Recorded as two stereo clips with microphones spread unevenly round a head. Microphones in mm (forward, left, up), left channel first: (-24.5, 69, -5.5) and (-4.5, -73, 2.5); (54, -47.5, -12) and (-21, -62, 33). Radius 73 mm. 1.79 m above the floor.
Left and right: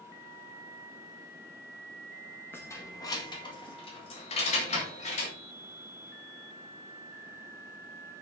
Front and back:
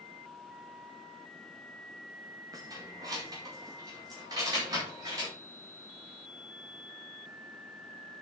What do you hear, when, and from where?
2.5 s keys jangling: 175° left, 1.8 m; by 5.3 s 140° left, 3 m